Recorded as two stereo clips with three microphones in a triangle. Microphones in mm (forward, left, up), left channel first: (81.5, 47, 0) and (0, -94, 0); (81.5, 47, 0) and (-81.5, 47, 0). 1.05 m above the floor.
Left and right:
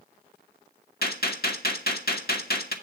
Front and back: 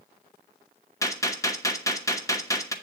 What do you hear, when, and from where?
1.0 s a gunshot: 70° left, 1.2 m